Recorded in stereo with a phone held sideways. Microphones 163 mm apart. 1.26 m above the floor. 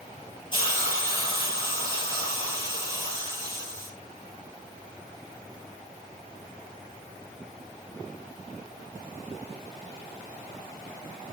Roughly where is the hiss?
Left.